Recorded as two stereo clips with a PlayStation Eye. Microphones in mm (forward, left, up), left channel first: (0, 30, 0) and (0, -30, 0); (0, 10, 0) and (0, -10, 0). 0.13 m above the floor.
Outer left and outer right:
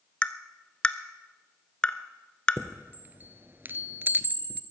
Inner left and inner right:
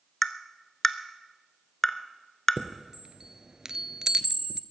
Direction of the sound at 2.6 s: 35° right (ahead or behind).